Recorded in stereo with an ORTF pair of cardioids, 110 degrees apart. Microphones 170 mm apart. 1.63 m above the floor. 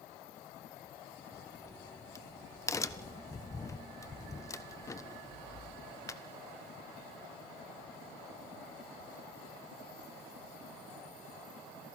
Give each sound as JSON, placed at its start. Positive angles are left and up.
{"t": 1.3, "sound": "a crack", "azimuth_deg": 20, "distance_m": 1.2}